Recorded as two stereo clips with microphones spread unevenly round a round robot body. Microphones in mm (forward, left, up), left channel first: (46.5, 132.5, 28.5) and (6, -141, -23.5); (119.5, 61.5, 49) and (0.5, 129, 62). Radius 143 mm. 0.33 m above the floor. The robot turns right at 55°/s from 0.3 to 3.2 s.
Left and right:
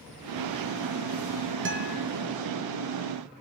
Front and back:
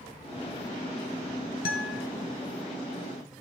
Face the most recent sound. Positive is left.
turn(degrees=35)